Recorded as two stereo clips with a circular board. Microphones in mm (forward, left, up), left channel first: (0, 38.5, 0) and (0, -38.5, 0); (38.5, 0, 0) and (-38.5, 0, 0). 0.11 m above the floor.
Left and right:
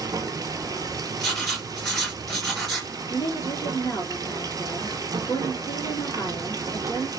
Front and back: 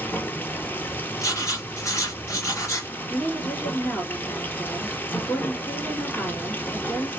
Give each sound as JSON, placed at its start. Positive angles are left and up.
{"t": 0.0, "sound": "running water", "azimuth_deg": -65, "distance_m": 0.7}
{"t": 1.2, "sound": "writing", "azimuth_deg": 5, "distance_m": 2.0}
{"t": 3.1, "sound": "a woman speaking", "azimuth_deg": 65, "distance_m": 2.5}